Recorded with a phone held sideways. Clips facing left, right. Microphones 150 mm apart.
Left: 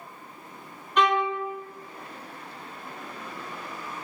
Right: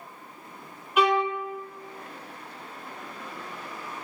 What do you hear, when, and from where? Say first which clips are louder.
1.0 s a violin: right 1 dB; 10° right (ahead or behind), 0.6 m